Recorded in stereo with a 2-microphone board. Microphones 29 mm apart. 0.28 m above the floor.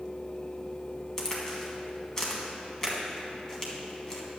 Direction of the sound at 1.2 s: 15° left (ahead or behind).